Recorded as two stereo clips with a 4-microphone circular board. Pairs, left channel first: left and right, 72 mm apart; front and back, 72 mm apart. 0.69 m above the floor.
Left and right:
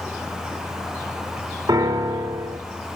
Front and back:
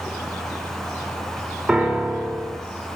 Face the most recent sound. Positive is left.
turn(degrees=-105)